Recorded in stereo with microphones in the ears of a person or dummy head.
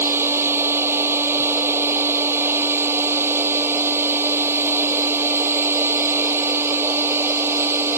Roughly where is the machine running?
Centre.